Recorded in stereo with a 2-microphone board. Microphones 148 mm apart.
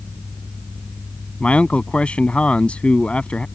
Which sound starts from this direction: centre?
A man speaking, at 1.4 s.